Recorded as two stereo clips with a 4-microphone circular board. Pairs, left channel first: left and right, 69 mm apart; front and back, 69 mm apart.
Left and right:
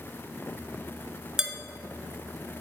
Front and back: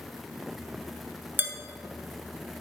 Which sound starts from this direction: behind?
Dishes clattering, at 1.4 s.